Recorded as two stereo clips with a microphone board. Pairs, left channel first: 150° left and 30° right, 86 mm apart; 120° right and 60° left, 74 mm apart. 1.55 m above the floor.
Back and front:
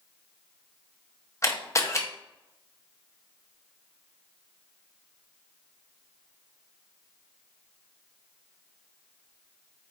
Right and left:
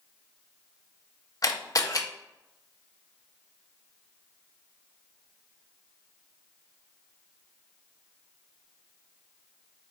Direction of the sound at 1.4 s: 155° right.